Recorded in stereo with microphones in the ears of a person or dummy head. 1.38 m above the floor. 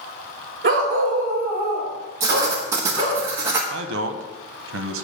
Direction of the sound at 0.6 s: 45° right (ahead or behind).